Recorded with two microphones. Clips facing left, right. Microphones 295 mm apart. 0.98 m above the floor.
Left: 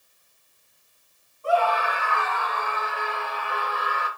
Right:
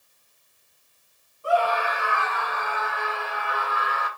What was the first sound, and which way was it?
A scream, 15° right (ahead or behind).